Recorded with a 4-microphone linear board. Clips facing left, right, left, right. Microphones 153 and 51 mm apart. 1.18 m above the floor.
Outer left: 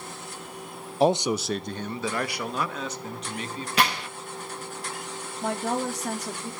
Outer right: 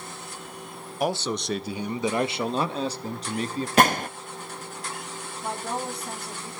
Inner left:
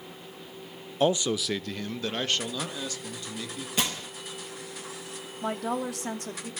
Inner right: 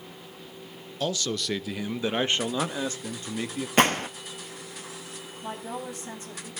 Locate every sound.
1.0 s a man speaking: 30° left (ahead or behind), 0.5 m; by 3.7 s 40° right (ahead or behind), 1.9 m
3.8 s a gunshot: 45° right (ahead or behind), 0.7 m
5.4 s a woman speaking: 85° left, 2.5 m